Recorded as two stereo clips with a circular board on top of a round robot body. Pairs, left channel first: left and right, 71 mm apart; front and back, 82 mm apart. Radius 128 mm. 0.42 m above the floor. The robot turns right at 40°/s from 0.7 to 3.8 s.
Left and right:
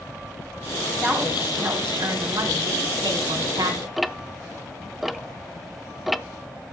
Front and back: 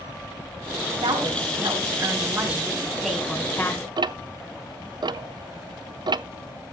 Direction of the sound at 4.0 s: Straight behind.